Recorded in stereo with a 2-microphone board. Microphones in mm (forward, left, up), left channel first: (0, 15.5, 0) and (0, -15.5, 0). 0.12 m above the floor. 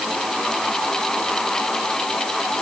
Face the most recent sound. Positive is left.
No sound to turn to.